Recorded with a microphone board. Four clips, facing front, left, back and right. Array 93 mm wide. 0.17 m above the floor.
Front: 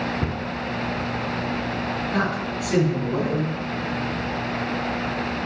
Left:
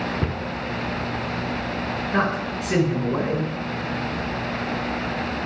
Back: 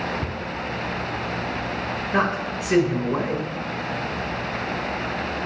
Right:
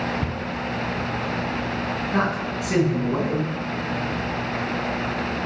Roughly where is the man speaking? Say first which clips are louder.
Left 1 dB, back 4 dB; behind.